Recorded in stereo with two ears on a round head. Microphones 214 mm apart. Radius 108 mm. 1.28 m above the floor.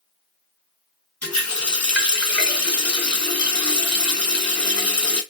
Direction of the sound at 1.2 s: 5° left (ahead or behind).